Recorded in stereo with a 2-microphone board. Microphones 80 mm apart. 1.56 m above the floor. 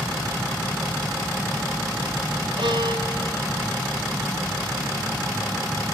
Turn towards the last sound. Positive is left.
turn(degrees=-80)